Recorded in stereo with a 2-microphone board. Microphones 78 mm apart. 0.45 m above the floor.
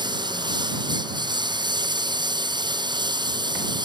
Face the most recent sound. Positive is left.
turn(degrees=-70)  # may be behind; listen again after turning